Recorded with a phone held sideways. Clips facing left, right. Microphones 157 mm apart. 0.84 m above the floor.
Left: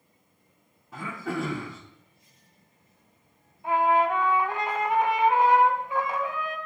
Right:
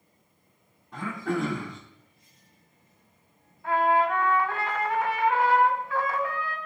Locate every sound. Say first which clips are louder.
0.9 s throat clearing: right 3 dB; 5° left (ahead or behind), 2.0 m
3.6 s a trumpet: left 1 dB; 20° left (ahead or behind), 1.1 m